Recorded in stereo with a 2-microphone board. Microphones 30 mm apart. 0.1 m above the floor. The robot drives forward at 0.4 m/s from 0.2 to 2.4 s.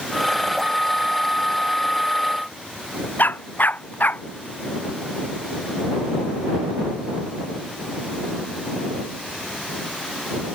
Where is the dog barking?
70° left (ahead or behind).